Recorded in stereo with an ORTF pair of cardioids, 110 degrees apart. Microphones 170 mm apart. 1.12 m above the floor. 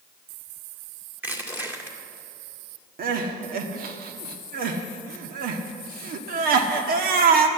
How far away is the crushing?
About 2 m.